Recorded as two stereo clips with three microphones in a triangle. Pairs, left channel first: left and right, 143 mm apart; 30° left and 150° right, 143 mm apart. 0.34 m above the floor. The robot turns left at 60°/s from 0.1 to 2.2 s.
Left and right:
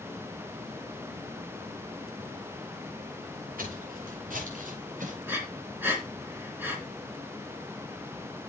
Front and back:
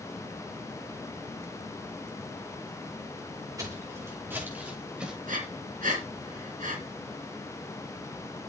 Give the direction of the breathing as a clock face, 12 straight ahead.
6 o'clock.